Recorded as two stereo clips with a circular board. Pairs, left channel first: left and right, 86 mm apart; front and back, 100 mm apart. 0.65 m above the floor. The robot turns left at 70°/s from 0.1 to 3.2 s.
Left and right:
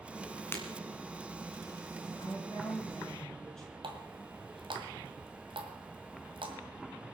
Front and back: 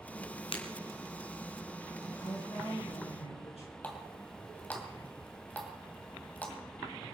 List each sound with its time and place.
0.5 s breaking glass: 25° left, 2.5 m; by 0.6 s 20° left, 2.5 m
2.2 s a woman speaking: 80° left, 7 m; by 3.7 s 10° left, 7 m
3.8 s a running tap: 75° right, 2.5 m